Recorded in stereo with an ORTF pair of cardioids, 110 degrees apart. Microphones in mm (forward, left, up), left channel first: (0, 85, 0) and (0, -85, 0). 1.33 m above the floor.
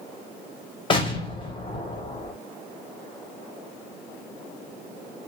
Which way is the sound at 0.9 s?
30° left.